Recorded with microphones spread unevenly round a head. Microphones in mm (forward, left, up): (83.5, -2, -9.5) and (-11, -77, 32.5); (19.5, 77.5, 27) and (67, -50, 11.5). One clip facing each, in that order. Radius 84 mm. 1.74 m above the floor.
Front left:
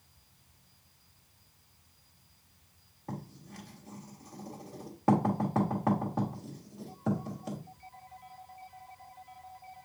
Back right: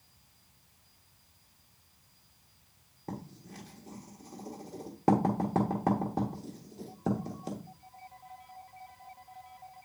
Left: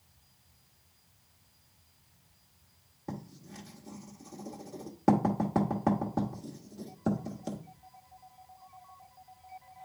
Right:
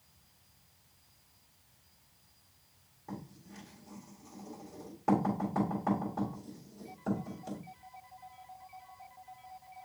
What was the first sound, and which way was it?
Writing, 160° left.